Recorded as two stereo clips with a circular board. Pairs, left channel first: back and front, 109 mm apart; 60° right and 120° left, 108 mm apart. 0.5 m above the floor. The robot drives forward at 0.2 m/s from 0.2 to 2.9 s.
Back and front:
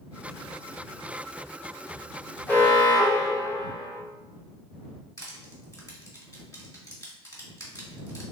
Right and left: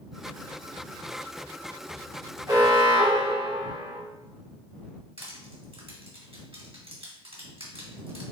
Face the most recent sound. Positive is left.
turn(degrees=130)